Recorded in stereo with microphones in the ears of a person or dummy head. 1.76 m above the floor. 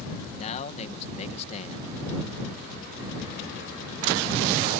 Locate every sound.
0.3 s a man speaking: 35° left (ahead or behind)